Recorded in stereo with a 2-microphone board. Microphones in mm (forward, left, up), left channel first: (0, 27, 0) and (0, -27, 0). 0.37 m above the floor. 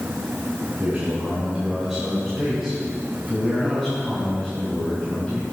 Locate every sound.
0.8 s a man speaking: 30° right (ahead or behind), 2.5 m; by 5.4 s 20° left (ahead or behind), 5.5 m